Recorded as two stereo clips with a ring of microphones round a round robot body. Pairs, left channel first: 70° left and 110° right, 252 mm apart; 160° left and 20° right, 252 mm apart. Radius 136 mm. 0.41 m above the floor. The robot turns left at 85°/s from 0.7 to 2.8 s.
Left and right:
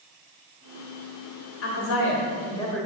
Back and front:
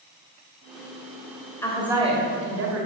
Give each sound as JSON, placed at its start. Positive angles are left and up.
{"t": 1.6, "sound": "a woman speaking", "azimuth_deg": 80, "distance_m": 1.7}